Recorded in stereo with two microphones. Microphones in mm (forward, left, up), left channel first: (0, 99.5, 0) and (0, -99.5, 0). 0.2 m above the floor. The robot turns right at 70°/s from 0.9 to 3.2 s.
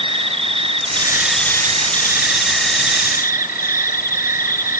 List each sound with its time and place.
0.0 s an insect: 30° right, 1.2 m; by 4.8 s 130° left, 1.2 m